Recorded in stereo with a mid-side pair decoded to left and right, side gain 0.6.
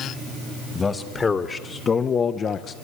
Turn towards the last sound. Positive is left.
turn(degrees=45)